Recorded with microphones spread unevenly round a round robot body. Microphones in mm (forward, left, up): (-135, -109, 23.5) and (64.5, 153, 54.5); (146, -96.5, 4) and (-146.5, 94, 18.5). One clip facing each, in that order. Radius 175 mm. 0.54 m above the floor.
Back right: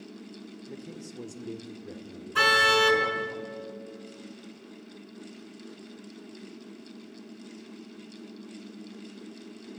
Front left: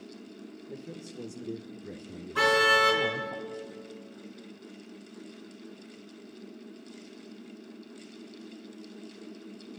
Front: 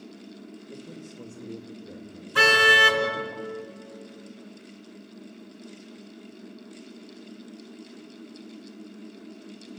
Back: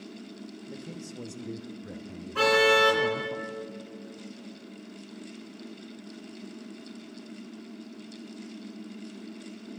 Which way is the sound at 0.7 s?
Straight behind.